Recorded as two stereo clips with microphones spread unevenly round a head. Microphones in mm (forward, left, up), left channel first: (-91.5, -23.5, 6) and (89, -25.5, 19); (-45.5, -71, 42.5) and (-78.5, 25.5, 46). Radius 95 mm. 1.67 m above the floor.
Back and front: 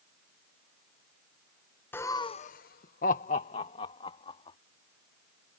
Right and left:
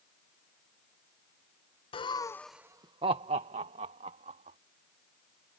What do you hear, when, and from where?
1.9 s laughter: 100° right; by 4.6 s 110° left